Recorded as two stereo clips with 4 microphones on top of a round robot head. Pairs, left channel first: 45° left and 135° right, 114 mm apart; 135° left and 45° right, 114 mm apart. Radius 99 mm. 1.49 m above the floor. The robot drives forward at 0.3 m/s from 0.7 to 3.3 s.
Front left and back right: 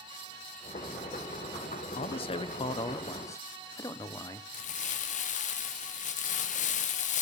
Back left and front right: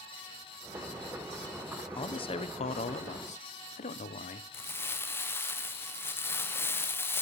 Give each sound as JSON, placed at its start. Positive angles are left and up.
{"t": 1.9, "sound": "a man speaking", "azimuth_deg": 85, "distance_m": 0.8}
{"t": 4.5, "sound": "crumpling", "azimuth_deg": 60, "distance_m": 0.9}